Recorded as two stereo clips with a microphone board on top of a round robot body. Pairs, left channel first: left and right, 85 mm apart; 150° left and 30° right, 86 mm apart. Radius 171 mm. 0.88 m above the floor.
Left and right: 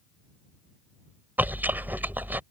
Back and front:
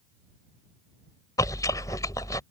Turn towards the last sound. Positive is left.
turn(degrees=-160)